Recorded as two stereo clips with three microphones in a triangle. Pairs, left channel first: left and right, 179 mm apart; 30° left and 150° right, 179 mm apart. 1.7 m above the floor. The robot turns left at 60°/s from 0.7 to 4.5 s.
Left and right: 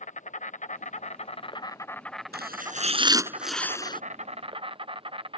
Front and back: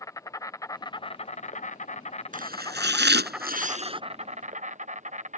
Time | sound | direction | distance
0.0 | an insect | 90° left | ?
2.3 | chopping | 110° right | ?